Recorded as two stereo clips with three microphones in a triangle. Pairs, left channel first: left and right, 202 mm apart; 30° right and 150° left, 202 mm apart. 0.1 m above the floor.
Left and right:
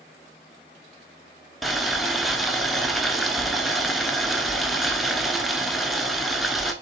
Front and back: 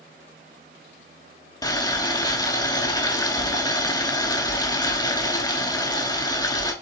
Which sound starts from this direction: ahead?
Boiling, at 1.6 s.